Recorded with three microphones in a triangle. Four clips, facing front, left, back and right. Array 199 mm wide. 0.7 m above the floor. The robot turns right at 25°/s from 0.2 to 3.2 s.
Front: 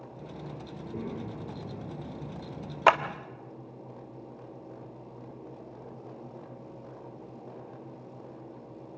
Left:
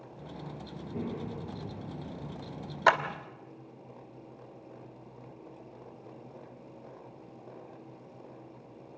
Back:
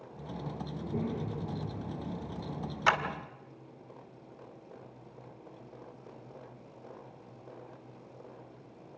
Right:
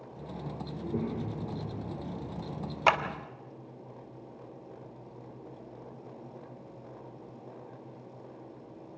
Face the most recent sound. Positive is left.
turn(degrees=20)